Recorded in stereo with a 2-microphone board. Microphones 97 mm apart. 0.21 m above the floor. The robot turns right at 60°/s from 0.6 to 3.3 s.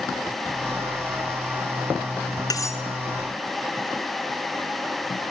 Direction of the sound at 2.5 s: 40° left (ahead or behind).